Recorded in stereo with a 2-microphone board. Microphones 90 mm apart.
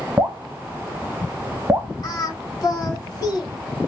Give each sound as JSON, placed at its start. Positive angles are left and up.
{"t": 0.2, "sound": "dripping", "side_deg": -30, "distance_m": 0.8}
{"t": 2.0, "sound": "singing", "side_deg": 45, "distance_m": 2.0}